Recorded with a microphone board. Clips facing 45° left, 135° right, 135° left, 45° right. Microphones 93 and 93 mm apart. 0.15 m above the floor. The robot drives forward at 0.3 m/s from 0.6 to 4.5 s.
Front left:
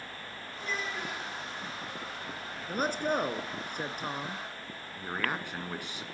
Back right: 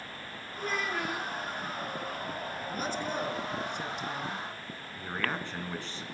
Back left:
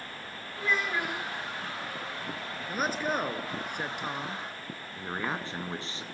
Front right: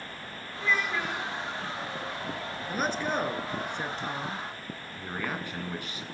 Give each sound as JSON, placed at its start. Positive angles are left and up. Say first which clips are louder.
{"t": 0.6, "sound": "a child speaking", "louder": "back right 4 dB, front right 1 dB", "azimuth_deg": -160, "distance_m": 8.5}
{"t": 2.7, "sound": "a man speaking", "louder": "front left 6 dB, even", "azimuth_deg": 50, "distance_m": 1.8}
{"t": 5.0, "sound": "a man speaking", "louder": "even, back left 1 dB", "azimuth_deg": 110, "distance_m": 1.7}